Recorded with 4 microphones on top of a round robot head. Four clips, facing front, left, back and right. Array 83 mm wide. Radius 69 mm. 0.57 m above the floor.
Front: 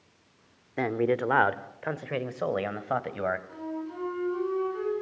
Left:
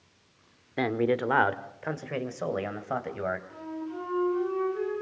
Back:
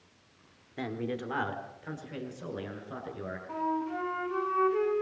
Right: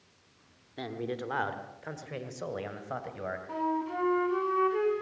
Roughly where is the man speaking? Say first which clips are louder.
Left 10 dB, front 9 dB; ahead left.